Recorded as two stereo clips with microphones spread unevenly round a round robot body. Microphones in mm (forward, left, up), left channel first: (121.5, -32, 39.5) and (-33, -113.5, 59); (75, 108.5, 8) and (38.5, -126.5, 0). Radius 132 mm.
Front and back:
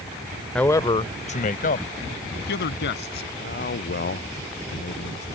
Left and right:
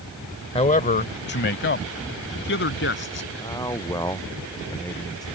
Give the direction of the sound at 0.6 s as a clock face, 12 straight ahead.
9 o'clock.